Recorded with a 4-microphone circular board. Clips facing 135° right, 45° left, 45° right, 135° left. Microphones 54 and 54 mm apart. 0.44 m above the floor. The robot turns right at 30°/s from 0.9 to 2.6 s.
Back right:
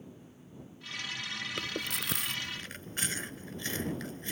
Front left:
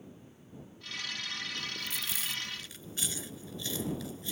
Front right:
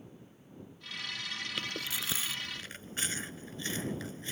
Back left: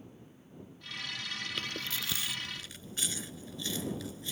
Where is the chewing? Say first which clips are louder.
Back right 3 dB, even; 125° right; by 4.3 s 95° right.